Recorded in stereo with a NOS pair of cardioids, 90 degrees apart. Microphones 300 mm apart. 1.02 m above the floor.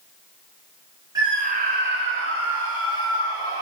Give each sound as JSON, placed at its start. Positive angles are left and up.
{"t": 1.1, "sound": "a scream", "azimuth_deg": -15, "distance_m": 0.8}